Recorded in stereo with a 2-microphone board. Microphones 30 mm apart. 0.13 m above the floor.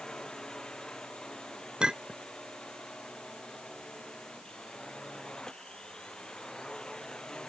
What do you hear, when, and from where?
0.0 s a drone: 25° left (ahead or behind)
1.8 s a clink: 30° right (ahead or behind)